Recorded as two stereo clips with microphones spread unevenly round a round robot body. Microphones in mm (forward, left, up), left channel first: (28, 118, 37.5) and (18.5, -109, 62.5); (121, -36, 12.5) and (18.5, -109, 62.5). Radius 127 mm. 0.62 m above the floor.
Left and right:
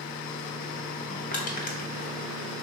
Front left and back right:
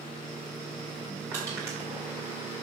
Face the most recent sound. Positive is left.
turn(degrees=130)